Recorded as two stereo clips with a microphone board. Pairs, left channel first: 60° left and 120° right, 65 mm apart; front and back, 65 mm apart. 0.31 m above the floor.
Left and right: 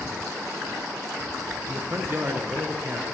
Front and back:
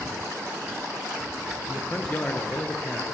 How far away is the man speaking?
About 4 m.